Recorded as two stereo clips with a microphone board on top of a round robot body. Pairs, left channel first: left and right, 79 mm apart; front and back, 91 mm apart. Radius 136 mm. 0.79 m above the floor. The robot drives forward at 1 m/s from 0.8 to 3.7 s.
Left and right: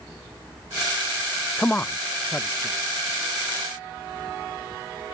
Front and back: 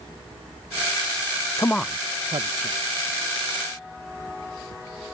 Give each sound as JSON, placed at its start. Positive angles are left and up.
{"t": 1.6, "sound": "a man speaking", "azimuth_deg": 25}